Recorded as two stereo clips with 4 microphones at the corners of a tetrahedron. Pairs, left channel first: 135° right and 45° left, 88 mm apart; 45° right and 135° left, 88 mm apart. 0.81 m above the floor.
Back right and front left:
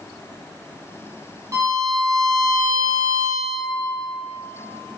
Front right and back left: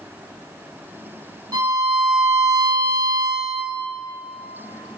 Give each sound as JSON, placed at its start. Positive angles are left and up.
{"t": 1.5, "sound": "a violin", "azimuth_deg": 95, "distance_m": 1.5}